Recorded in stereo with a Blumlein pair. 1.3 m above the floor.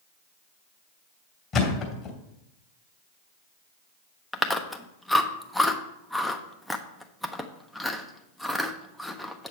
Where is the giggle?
No giggle in this recording.